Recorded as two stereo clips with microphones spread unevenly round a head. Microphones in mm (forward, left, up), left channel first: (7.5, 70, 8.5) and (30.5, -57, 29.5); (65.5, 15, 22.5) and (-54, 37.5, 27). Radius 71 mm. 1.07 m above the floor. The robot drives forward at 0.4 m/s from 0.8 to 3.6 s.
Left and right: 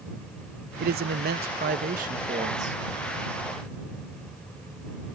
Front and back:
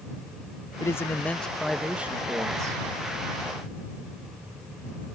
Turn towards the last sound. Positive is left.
turn(degrees=-135)